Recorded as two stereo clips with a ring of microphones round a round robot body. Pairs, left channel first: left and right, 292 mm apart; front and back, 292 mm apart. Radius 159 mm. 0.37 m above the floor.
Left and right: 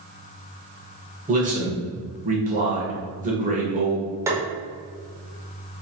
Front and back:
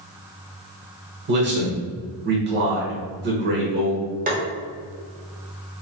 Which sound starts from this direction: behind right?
A man speaking, at 1.3 s.